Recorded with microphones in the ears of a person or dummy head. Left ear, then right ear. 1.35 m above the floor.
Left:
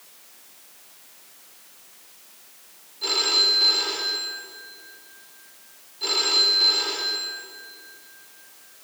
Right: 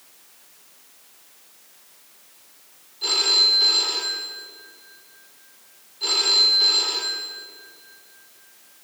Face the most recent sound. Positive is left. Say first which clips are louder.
# right 2 dB
turn(degrees=-5)  # may be behind; listen again after turning